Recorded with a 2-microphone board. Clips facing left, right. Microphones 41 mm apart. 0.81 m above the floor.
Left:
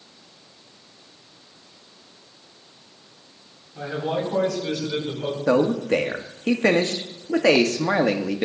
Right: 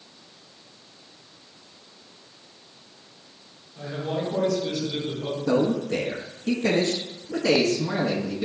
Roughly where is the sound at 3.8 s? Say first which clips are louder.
Left 3 dB; left.